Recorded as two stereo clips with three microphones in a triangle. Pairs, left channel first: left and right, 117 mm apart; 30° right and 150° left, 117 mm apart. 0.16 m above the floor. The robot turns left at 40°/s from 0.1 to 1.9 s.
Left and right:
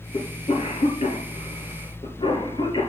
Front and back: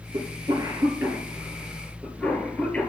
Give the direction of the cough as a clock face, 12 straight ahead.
8 o'clock.